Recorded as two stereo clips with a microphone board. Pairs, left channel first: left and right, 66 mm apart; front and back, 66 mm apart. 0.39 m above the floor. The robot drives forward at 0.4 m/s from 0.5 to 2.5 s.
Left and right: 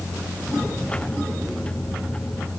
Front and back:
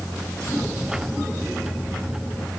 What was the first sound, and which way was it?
Only background noise.